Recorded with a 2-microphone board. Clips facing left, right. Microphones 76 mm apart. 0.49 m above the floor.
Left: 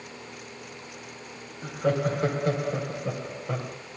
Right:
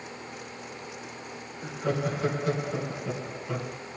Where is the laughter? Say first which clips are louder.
Left 4 dB; 50° left (ahead or behind), 3 m.